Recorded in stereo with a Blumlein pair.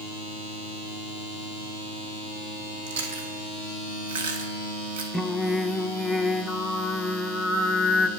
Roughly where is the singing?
Ahead.